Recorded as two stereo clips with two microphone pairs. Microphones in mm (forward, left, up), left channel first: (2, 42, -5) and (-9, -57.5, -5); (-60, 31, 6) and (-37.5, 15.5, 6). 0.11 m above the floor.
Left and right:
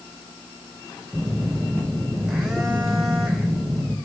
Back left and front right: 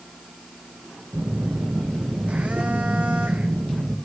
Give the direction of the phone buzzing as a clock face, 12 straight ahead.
12 o'clock.